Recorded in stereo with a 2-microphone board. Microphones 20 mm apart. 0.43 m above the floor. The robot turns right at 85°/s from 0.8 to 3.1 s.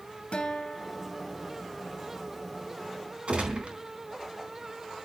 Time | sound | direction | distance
0.3 | a guitar | 105° left | 2 m
3.3 | a gunshot | 65° right (ahead or behind) | 4 m